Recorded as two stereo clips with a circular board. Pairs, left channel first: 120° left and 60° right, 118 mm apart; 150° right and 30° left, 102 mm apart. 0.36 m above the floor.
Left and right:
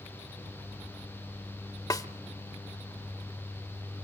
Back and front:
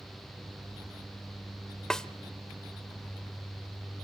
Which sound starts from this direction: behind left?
A snare drum, at 1.9 s.